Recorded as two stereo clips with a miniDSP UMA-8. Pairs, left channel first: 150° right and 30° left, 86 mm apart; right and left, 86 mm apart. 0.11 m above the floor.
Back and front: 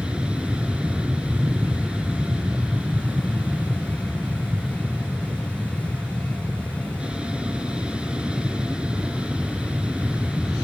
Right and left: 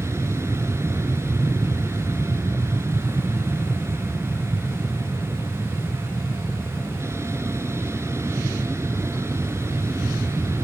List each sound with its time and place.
0.0 s an aircraft: 100° left